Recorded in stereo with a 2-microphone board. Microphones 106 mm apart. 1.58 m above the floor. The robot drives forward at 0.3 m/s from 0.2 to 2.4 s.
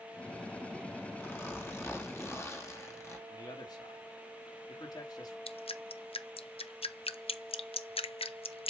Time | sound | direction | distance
1.2 | a zipper | 20° left (ahead or behind) | 2.5 m
3.3 | a man speaking | 40° left (ahead or behind) | 2.5 m
5.5 | dripping | 65° left (ahead or behind) | 0.7 m